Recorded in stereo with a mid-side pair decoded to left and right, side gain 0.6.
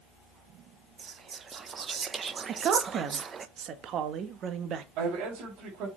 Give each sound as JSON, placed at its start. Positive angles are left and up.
{"t": 1.0, "sound": "whispering", "azimuth_deg": -35, "distance_m": 1.1}
{"t": 2.5, "sound": "a woman speaking", "azimuth_deg": -50, "distance_m": 1.5}
{"t": 5.0, "sound": "a man speaking", "azimuth_deg": -70, "distance_m": 4.5}